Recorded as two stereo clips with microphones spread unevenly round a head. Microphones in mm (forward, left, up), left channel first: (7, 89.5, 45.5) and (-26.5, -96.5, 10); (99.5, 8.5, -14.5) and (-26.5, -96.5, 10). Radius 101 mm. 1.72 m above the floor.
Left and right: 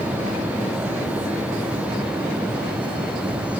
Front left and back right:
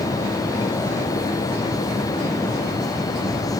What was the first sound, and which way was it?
Only background noise.